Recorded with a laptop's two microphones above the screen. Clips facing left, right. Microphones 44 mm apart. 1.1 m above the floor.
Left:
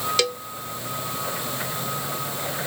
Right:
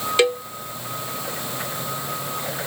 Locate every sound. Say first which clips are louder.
0.2 s a cowbell: right 11 dB; 25° right (ahead or behind)